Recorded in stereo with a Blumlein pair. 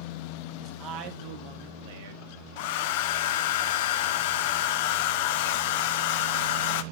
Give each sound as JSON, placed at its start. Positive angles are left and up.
{"t": 0.6, "sound": "a man speaking", "azimuth_deg": -30, "distance_m": 1.6}
{"t": 2.6, "sound": "a hair dryer", "azimuth_deg": 50, "distance_m": 0.6}